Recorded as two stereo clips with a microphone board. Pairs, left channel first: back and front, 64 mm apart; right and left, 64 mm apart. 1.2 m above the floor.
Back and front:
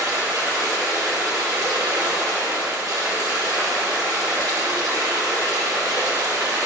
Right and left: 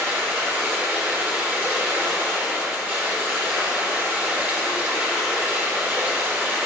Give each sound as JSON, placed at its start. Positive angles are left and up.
{"t": 0.0, "sound": "running water", "azimuth_deg": 25, "distance_m": 1.7}